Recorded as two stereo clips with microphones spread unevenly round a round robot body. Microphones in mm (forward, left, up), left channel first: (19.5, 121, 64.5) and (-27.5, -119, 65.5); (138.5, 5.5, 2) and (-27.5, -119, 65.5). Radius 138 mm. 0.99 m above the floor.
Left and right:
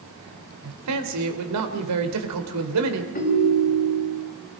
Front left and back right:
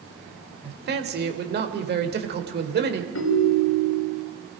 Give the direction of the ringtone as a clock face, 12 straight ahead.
11 o'clock.